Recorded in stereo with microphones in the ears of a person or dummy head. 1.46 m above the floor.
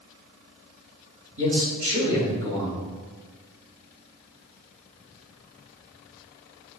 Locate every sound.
1.4 s a man speaking: 75° right (ahead or behind), 2.5 m